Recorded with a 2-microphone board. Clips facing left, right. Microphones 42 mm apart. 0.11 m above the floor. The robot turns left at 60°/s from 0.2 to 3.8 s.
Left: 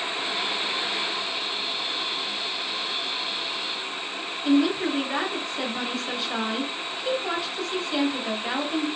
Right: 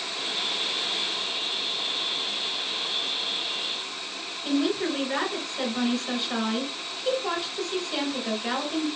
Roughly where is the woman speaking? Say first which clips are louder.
Left 4 dB; centre.